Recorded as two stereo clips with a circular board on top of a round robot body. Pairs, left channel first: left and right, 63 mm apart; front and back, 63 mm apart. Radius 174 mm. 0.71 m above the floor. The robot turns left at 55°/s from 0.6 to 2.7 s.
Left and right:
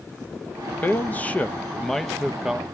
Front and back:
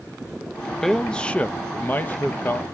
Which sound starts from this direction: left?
A man speaking, at 0.8 s.